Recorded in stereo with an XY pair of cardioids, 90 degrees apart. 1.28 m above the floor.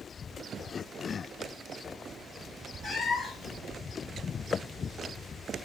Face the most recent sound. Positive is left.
turn(degrees=70)